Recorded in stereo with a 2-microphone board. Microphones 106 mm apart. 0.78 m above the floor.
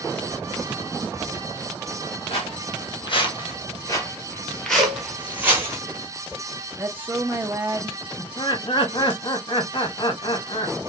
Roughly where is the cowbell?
Right.